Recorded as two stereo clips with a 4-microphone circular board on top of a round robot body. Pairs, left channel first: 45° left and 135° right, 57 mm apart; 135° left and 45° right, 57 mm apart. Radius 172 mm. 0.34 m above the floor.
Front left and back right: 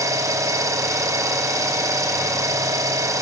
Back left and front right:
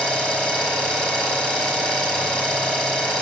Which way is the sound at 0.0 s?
150° right.